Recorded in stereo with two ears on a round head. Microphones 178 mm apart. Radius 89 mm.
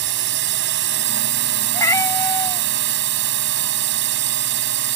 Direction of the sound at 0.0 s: 65° right (ahead or behind).